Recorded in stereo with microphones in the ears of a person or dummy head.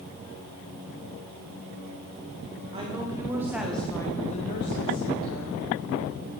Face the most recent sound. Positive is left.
turn(degrees=85)